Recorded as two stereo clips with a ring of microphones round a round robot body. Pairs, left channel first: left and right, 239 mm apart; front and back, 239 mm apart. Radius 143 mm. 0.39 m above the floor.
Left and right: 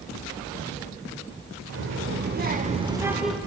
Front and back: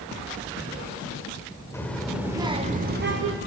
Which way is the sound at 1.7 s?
80° right.